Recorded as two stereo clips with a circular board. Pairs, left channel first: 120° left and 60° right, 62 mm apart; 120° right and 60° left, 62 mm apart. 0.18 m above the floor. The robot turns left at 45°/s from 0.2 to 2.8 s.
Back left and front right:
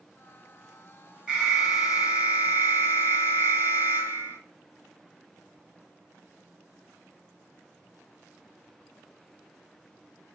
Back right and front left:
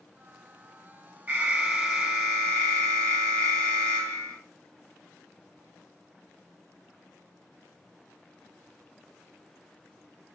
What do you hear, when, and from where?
1.3 s an alarm: 10° left, 2.5 m; by 4.4 s 60° right, 2.5 m